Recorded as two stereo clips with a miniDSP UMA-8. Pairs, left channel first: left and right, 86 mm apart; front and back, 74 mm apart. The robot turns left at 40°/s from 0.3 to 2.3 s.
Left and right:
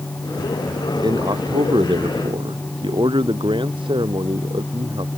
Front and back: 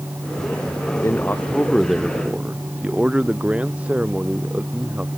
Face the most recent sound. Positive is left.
turn(degrees=-105)